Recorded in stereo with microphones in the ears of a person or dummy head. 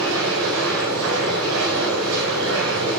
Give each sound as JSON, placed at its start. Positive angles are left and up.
{"t": 0.0, "sound": "a machine running", "side_deg": -75, "distance_m": 5.5}